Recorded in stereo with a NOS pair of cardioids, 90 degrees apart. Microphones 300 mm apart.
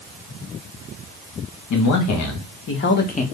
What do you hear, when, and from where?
1.7 s a man speaking: 65° left, 1.5 m; by 3.2 s 25° left, 0.9 m